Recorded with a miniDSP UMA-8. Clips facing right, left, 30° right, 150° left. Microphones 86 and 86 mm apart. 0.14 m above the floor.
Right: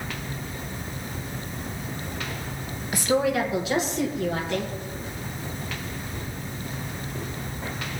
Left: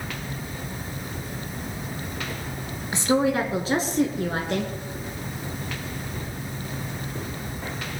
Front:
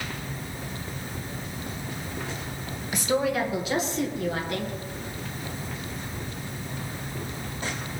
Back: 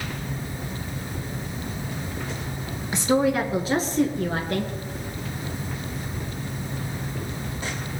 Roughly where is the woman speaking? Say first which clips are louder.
Left 1 dB, back 4 dB; behind left.